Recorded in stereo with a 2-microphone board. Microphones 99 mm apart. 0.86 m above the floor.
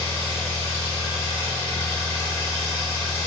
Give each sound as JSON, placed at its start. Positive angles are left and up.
{"t": 0.0, "sound": "an engine running", "side_deg": 25, "distance_m": 1.3}